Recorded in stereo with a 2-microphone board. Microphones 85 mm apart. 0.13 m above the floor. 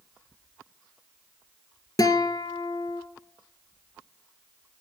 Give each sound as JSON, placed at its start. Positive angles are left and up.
{"t": 2.0, "sound": "a guitar", "side_deg": 45, "distance_m": 1.3}